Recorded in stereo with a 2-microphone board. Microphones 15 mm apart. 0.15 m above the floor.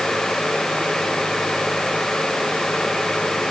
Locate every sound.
Only background noise.